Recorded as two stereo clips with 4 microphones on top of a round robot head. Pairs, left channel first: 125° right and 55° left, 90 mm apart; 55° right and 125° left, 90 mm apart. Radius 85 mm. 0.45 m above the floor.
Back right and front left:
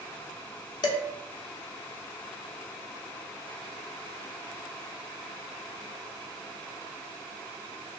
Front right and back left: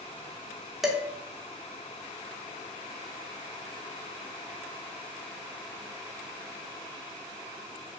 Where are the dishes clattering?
145° right, 0.7 m.